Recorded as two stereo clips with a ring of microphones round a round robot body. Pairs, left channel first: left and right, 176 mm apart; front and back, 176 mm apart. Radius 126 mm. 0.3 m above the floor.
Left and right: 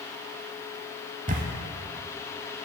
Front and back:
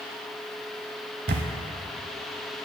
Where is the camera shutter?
140° right, 0.5 m.